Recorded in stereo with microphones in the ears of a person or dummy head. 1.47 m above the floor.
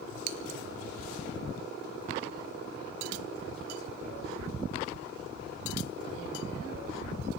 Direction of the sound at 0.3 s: 65° right (ahead or behind).